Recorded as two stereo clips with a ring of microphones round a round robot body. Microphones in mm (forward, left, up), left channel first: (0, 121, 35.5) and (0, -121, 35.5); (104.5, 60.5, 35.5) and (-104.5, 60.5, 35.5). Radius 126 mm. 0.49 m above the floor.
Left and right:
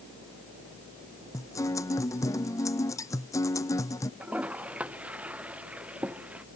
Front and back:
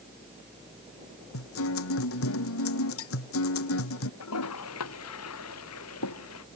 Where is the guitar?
10° left.